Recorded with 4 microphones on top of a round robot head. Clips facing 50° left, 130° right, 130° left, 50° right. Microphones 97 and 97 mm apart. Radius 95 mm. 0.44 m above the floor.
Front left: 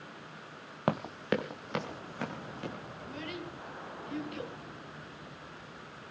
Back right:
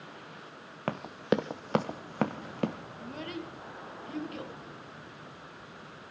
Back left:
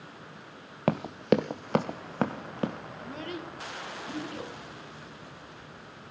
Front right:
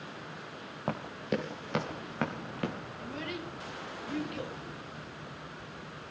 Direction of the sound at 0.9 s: 125° left.